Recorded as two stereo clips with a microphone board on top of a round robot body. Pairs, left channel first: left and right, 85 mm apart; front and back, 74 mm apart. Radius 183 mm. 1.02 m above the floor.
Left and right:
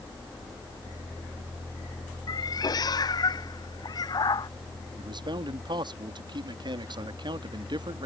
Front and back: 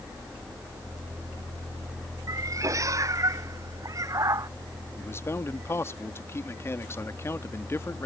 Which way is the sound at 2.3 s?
135° left.